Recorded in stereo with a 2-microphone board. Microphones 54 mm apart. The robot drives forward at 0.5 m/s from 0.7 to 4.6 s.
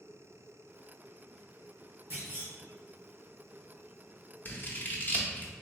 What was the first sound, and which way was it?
A clunk, 45° right (ahead or behind).